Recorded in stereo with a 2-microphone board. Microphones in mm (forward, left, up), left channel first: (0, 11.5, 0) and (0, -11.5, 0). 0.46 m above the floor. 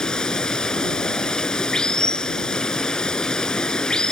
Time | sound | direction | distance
0.0 | running water | 40° left (ahead or behind) | ?